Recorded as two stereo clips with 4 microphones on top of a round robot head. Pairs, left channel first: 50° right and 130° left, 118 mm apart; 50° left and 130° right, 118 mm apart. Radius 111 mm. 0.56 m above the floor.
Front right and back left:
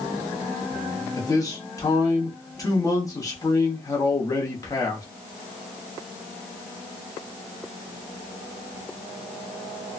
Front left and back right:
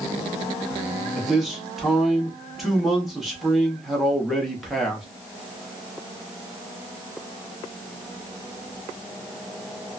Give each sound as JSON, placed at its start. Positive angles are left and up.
{"t": 1.2, "sound": "a man speaking", "azimuth_deg": -40, "distance_m": 1.3}